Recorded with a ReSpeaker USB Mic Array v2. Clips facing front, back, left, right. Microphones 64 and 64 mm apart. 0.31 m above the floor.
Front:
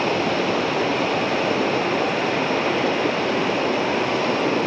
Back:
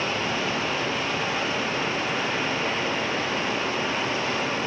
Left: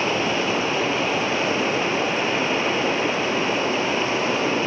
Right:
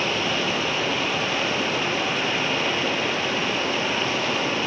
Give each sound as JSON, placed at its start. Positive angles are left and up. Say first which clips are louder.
{"t": 0.0, "sound": "running water", "louder": "front 6 dB, left 2 dB", "azimuth_deg": 25, "distance_m": 3.5}